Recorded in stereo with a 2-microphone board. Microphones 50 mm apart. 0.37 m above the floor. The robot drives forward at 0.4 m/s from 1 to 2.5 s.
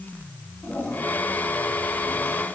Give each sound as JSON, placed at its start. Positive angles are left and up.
{"t": 0.6, "sound": "a toilet flushing", "side_deg": 45, "distance_m": 4.0}